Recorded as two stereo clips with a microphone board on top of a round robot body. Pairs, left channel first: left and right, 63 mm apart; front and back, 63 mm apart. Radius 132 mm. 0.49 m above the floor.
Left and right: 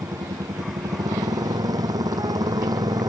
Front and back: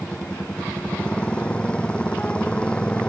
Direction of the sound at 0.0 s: 75° right.